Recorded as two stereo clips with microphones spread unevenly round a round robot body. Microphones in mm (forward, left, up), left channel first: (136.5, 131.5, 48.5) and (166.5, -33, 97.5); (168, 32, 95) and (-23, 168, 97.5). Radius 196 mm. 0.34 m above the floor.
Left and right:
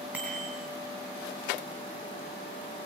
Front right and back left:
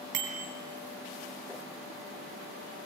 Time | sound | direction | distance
0.1 | a bicycle bell | 170° right | 3 m